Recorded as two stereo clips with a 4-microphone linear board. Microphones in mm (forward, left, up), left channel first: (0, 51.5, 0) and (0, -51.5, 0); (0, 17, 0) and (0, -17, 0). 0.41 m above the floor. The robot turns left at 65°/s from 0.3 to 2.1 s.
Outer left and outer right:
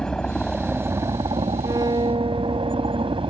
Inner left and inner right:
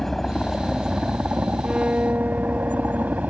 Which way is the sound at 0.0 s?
10° left.